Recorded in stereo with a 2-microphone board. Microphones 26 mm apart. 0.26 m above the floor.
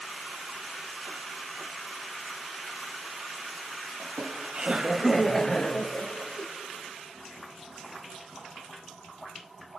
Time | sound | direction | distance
4.0 | laughter | 55° right (ahead or behind) | 1.7 m